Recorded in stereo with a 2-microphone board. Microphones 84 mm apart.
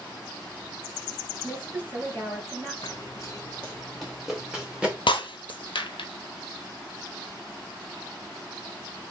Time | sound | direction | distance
1.4 | a woman speaking | 25° right (ahead or behind) | 2.5 m
2.8 | running footsteps | 50° left (ahead or behind) | 0.6 m
5.1 | breaking glass | 80° left | 0.6 m